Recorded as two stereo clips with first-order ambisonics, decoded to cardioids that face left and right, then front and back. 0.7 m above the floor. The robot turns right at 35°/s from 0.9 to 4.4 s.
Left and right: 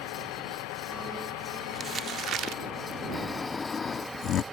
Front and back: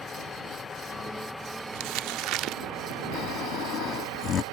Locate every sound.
0.0 s a vehicle: 70° left; by 4.5 s 170° right
1.7 s crumpling: 165° right; by 2.6 s 135° right
3.1 s snoring: 5° left; by 4.4 s 50° left